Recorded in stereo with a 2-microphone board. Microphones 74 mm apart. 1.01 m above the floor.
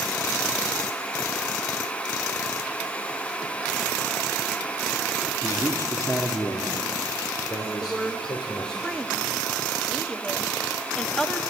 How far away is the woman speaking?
About 1.3 m.